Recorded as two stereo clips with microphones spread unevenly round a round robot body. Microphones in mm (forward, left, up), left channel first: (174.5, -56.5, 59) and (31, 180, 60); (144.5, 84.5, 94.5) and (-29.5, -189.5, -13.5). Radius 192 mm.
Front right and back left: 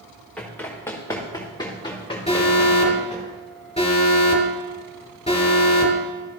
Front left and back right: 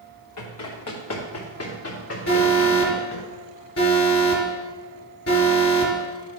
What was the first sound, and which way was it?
Running footsteps, 25° left.